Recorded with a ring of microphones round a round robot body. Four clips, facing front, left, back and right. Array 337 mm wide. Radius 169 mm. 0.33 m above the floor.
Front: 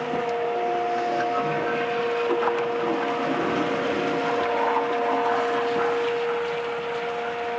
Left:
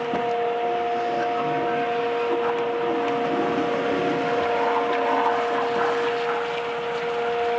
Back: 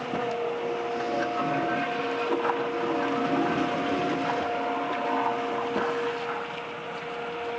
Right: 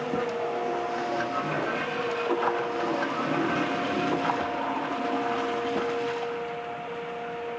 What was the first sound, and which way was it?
Only background noise.